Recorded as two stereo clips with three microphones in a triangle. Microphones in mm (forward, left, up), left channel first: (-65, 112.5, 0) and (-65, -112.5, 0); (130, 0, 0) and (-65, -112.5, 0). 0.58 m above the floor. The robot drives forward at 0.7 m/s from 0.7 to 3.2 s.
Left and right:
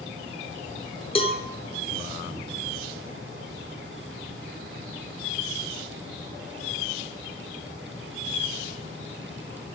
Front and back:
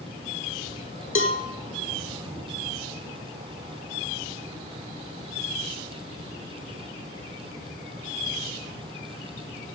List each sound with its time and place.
1.1 s a cowbell: 30° left, 1.1 m; by 1.4 s 35° left, 1.0 m